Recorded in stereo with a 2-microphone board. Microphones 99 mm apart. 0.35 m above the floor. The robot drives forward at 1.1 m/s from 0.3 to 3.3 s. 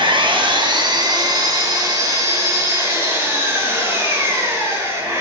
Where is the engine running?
55° right (ahead or behind), 2.5 m; by 5.2 s 25° right (ahead or behind), 5 m.